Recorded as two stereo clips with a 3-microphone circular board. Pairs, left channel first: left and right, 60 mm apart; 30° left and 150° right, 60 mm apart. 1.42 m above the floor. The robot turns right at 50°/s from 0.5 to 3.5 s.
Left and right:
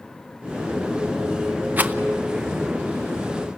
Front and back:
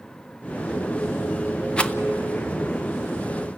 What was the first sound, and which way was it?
A rattle, 40° right.